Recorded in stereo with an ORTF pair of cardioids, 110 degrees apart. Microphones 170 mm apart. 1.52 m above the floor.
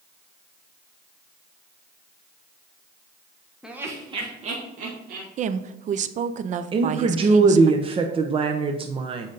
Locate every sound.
3.6 s laughter: 5° right, 1.4 m; by 5.3 s 60° right, 3 m
5.4 s a woman speaking: 45° right, 0.6 m
6.7 s a woman speaking: 35° right, 0.8 m